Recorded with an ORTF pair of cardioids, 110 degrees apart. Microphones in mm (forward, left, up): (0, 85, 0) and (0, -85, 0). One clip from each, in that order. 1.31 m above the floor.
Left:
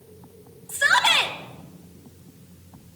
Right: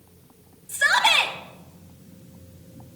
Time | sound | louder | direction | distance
0.7 | a shout | even | 15° right | 2.5 m